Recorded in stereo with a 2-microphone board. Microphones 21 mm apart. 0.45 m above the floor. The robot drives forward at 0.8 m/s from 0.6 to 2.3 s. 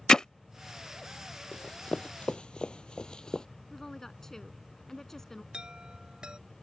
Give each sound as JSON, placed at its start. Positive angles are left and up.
{"t": 0.1, "sound": "hammering", "side_deg": 40}
{"t": 1.5, "sound": "running footsteps", "side_deg": 60}
{"t": 3.7, "sound": "a woman speaking", "side_deg": 25}
{"t": 5.5, "sound": "a chime", "side_deg": -50}